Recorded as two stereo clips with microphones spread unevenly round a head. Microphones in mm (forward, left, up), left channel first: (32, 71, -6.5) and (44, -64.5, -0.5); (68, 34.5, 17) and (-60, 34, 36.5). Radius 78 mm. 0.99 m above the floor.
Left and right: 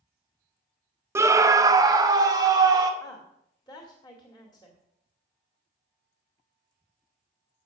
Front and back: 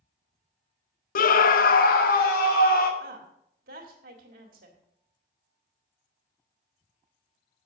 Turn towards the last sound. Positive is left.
turn(degrees=170)